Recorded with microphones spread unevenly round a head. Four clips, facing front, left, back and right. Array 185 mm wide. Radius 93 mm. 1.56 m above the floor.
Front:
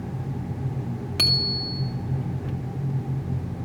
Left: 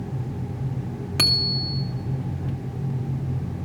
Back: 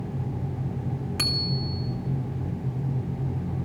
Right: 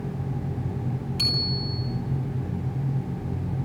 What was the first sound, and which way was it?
A bicycle bell, 65° left.